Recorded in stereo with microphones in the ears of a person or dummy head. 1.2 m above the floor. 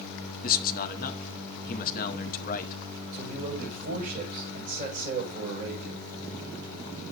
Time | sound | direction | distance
0.4 | a man speaking | 50° left (ahead or behind) | 0.9 m
3.1 | a man speaking | 50° right (ahead or behind) | 5.5 m